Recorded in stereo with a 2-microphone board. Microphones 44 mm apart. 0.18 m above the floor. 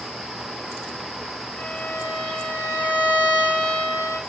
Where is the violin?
20° left (ahead or behind), 9.5 m.